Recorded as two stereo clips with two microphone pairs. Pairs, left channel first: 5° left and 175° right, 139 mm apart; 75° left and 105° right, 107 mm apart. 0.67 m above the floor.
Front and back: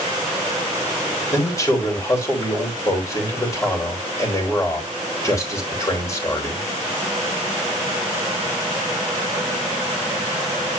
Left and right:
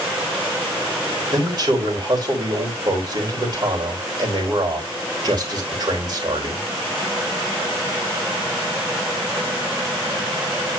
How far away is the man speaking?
About 3.5 m.